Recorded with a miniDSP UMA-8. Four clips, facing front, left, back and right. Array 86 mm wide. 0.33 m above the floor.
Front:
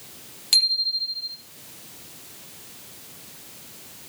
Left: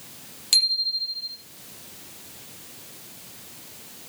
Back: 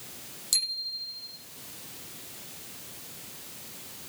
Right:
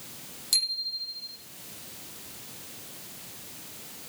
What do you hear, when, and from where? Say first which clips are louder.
0.5 s a bicycle bell: left 8 dB, front 12 dB; 35° left, 8 m